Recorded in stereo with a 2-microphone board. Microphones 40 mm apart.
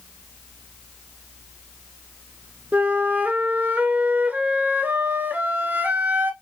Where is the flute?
45° right (ahead or behind), 0.6 m.